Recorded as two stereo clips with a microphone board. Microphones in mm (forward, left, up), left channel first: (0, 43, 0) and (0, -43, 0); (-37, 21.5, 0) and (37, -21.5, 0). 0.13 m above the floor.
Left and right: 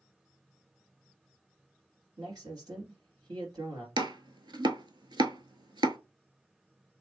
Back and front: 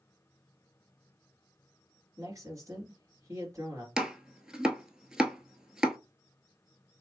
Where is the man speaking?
75° right, 2.5 m.